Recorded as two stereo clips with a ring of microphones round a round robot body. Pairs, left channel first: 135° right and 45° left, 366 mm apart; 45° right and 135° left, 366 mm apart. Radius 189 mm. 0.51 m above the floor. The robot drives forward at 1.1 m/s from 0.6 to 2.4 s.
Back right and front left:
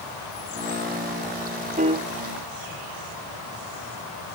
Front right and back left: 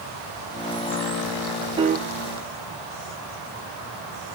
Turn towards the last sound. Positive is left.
turn(degrees=150)